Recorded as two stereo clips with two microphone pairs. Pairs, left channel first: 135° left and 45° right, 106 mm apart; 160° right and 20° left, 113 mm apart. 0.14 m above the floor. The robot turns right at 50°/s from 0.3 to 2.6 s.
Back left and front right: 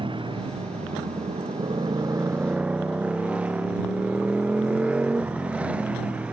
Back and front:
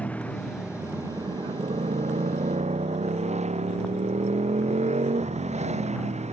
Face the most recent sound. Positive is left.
turn(degrees=35)